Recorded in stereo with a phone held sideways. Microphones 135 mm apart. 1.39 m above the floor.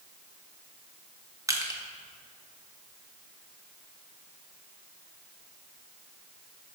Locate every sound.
1.5 s crushing: 25° right (ahead or behind), 0.9 m